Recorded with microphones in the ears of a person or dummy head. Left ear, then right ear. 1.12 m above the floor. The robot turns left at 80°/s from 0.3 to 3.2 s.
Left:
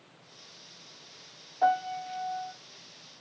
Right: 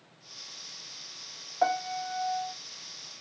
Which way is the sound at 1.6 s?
105° right.